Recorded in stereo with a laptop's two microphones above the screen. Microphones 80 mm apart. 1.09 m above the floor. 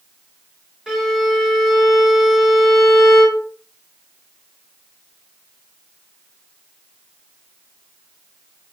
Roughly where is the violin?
Centre.